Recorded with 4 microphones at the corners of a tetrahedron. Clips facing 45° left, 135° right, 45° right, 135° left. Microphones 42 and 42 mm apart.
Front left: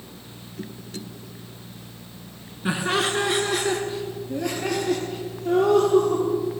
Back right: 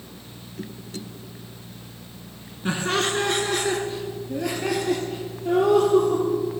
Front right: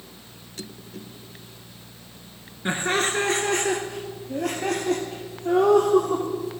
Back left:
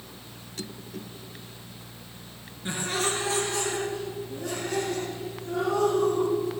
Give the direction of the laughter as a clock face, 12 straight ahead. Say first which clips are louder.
Front left 1 dB, front right 5 dB; 1 o'clock.